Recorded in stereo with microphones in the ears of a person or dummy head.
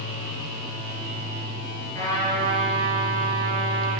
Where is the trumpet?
10° left (ahead or behind), 6 m.